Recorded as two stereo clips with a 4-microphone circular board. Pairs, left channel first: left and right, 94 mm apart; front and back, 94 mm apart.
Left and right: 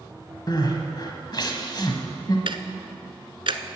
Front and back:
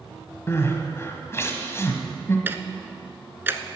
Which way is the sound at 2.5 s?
115° right.